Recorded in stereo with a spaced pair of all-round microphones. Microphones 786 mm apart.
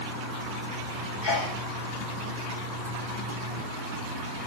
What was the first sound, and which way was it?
A sneeze, 70° left (ahead or behind).